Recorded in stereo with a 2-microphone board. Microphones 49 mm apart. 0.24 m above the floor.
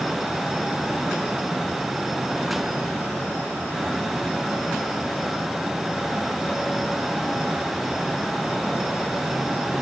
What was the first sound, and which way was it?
Only background noise.